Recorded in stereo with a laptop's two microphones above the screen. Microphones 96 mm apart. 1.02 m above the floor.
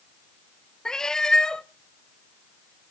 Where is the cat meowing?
5° left (ahead or behind), 0.5 m.